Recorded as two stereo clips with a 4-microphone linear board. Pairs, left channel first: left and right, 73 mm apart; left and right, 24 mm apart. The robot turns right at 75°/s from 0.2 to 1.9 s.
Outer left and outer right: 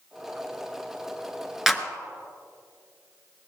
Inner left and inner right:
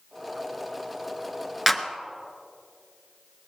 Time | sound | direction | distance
1.7 | a clap | 5° right (ahead or behind) | 1.0 m